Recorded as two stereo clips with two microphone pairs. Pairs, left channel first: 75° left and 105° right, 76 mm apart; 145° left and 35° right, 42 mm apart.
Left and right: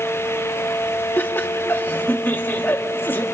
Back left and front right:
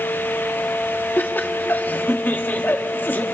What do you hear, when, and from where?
1.2 s laughter: 130° left, 1.5 m